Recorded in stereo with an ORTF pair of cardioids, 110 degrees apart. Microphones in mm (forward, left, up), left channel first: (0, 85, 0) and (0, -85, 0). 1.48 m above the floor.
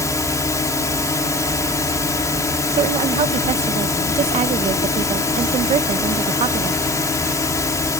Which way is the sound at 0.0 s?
20° left.